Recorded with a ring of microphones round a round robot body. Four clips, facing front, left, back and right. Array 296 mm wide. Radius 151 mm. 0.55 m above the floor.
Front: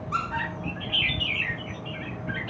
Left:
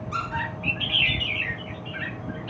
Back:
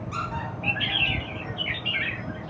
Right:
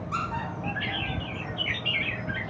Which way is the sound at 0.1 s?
145° left.